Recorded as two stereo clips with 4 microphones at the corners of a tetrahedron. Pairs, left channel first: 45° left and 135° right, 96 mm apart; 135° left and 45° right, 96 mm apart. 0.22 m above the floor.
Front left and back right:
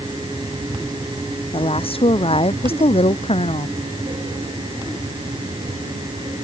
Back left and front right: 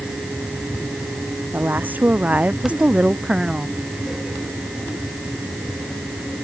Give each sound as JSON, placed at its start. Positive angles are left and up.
{"t": 1.5, "sound": "a woman speaking", "azimuth_deg": 25}